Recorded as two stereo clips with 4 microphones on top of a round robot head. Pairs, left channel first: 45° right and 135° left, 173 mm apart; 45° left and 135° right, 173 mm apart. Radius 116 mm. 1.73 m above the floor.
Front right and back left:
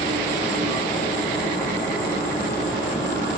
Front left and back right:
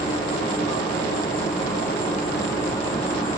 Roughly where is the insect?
Ahead left.